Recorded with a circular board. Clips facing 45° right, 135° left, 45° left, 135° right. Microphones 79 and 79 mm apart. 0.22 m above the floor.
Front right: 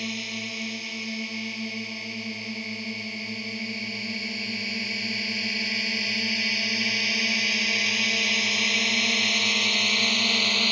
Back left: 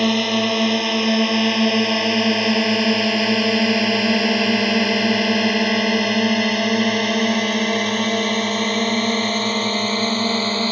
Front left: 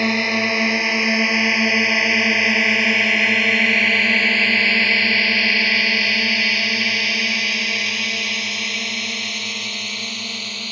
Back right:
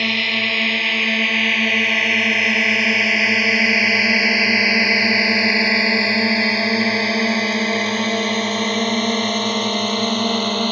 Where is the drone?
115° left; by 10.7 s 170° right.